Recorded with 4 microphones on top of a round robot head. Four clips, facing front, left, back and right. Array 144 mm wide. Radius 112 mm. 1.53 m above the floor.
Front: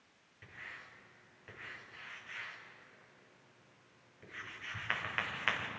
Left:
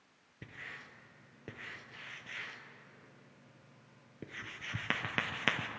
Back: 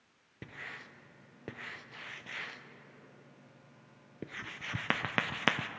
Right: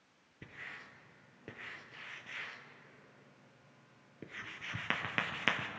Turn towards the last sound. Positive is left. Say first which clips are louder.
# left 1 dB, back 5 dB
turn(degrees=170)